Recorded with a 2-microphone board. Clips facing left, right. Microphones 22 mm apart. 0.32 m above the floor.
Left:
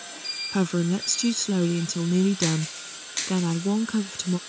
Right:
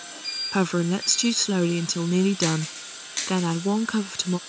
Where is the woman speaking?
20° right (ahead or behind).